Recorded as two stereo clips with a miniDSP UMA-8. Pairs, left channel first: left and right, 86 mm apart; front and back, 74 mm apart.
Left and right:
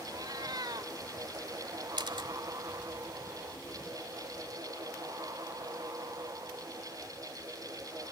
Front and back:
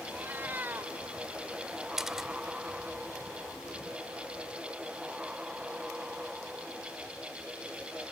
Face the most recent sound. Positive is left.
turn(degrees=-100)